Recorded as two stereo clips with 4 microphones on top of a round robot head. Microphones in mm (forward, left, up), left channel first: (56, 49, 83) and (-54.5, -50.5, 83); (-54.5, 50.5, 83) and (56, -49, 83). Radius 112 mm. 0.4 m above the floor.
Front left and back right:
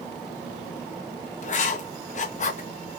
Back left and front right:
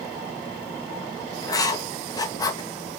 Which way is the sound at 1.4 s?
75° left.